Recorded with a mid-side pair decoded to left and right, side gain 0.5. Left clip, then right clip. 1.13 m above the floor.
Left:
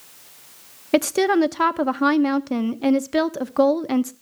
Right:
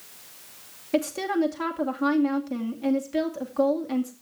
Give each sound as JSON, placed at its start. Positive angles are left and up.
{"t": 0.9, "sound": "a woman speaking", "azimuth_deg": 60, "distance_m": 1.0}